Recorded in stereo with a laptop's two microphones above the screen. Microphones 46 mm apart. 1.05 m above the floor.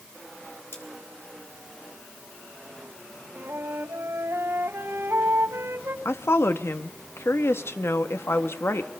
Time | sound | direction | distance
0.7 | cutlery clinking | 65° left (ahead or behind) | 5 m
3.4 | a flute | 70° right (ahead or behind) | 2.5 m
6.0 | a woman speaking | 65° left (ahead or behind) | 1.5 m